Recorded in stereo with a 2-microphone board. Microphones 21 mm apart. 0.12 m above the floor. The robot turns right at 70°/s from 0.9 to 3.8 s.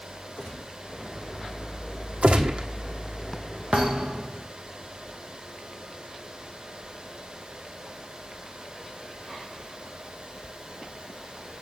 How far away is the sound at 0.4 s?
About 3.5 m.